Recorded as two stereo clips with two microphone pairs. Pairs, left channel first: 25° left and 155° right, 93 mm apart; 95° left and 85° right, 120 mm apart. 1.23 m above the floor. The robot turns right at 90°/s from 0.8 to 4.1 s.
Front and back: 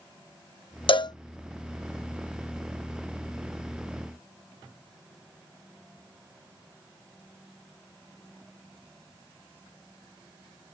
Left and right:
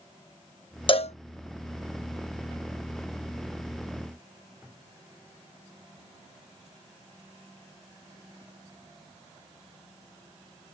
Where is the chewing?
I don't hear chewing.